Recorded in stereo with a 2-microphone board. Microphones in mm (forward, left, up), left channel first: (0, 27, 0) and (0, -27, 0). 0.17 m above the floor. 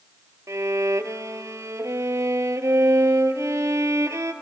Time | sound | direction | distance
0.5 | a violin | 80° right | 0.7 m